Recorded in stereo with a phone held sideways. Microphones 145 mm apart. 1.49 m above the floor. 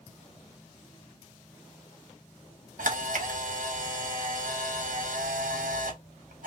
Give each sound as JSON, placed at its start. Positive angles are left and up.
{"t": 2.8, "sound": "a camera shutter", "side_deg": -80, "distance_m": 0.9}